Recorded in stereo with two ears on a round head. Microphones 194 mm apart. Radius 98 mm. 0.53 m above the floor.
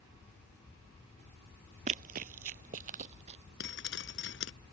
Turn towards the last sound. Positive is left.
turn(degrees=55)  # may be behind; listen again after turning